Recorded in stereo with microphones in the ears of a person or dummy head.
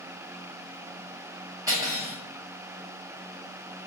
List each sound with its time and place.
1.7 s cutlery clinking: 15° right (ahead or behind), 1.1 m